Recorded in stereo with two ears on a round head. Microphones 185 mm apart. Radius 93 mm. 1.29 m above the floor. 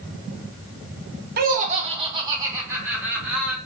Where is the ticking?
No ticking in this recording.